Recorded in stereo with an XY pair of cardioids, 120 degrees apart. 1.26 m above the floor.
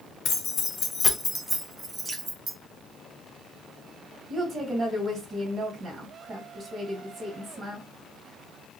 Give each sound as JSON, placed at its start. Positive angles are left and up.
{"t": 0.2, "sound": "keys jangling", "azimuth_deg": 65, "distance_m": 0.8}
{"t": 2.0, "sound": "dripping", "azimuth_deg": -20, "distance_m": 1.0}
{"t": 4.3, "sound": "a woman speaking", "azimuth_deg": -40, "distance_m": 1.5}